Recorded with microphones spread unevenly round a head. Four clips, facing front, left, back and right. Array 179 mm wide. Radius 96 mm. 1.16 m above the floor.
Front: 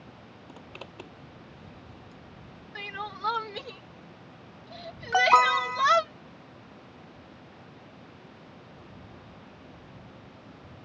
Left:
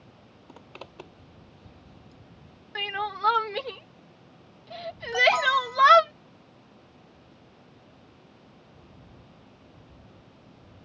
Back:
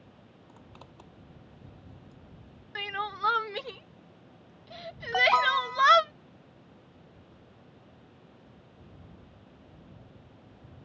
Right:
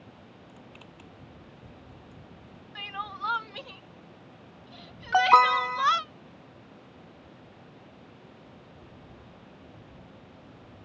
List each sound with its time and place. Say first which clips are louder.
0.5 s a zipper: left 4 dB, front 7 dB; 55° left
2.8 s crying: left 6 dB, back 3 dB; 110° left
5.1 s an alarm: right 4 dB, front 4 dB; 50° right